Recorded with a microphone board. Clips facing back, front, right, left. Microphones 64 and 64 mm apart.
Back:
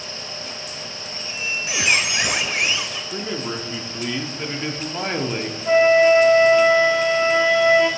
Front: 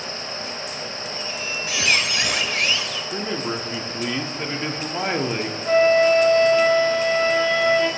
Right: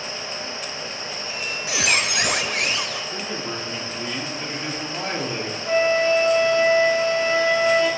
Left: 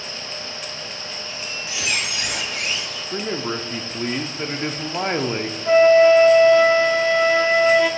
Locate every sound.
1.1 s a squeak: 110° right, 0.9 m
3.1 s a man speaking: 80° left, 0.7 m
5.7 s a flute: 115° left, 1.3 m